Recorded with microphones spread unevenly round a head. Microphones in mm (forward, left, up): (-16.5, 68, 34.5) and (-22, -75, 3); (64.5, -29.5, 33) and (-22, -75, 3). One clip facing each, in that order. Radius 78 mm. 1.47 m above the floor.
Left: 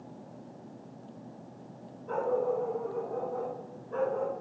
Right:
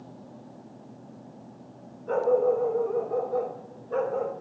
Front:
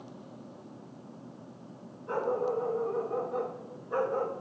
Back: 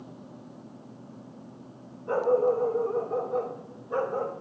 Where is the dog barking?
110° right, 2.0 m; by 4.3 s 65° right, 2.0 m.